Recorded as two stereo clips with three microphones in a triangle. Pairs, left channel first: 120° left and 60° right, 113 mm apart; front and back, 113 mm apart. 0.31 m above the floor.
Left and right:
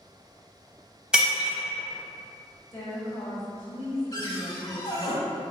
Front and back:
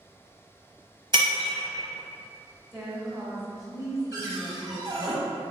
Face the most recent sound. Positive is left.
turn(degrees=155)